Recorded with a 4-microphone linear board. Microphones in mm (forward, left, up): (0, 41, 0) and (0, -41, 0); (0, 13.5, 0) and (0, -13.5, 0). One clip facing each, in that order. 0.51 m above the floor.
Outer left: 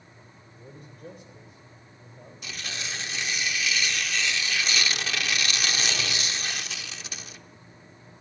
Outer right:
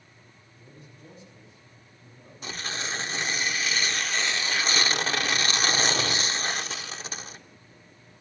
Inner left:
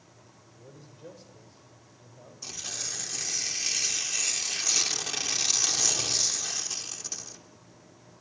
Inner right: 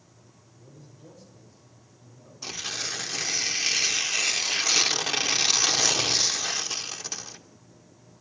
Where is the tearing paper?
35° right (ahead or behind), 0.6 m.